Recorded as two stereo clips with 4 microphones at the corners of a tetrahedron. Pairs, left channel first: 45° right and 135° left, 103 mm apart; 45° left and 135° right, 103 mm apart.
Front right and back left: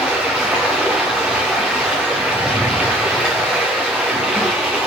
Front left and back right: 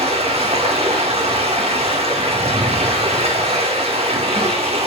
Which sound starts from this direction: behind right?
Running water, at 0.0 s.